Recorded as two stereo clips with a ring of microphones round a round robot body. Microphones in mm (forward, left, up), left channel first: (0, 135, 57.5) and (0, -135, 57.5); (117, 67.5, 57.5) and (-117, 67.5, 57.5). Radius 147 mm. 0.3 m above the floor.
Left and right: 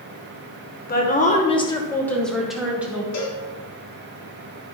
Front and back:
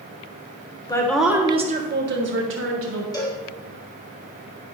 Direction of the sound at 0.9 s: 60° left.